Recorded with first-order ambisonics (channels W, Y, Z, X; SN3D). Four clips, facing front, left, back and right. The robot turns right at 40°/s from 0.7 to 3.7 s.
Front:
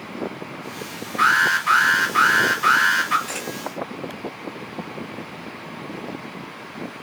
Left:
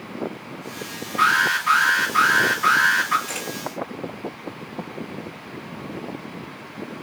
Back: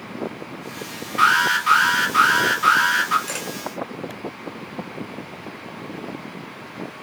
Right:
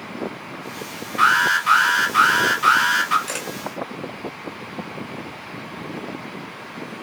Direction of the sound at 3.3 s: 125° right.